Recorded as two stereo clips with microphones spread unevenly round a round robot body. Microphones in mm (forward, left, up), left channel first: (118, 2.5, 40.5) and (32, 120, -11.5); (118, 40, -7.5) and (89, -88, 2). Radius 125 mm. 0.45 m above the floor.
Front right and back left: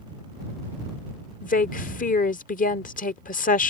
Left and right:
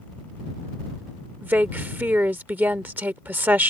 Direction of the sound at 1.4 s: 30° right.